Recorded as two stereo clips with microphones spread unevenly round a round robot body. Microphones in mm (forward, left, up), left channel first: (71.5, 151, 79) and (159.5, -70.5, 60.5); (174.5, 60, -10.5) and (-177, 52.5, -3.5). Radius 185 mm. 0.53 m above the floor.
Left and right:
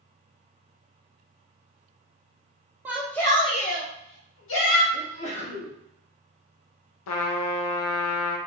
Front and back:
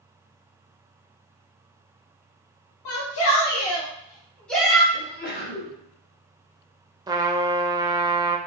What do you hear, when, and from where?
2.9 s a shout: 10° left, 0.9 m; by 4.8 s 95° left, 1.3 m
4.9 s a sneeze: 55° left, 1.7 m
7.1 s a trumpet: 100° left, 0.6 m